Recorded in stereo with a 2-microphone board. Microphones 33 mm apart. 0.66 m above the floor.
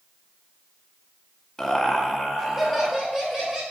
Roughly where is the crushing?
I don't hear crushing.